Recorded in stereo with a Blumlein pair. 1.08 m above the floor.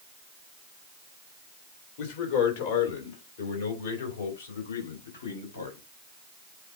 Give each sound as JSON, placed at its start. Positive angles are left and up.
{"t": 2.0, "sound": "a man speaking", "azimuth_deg": 50, "distance_m": 2.5}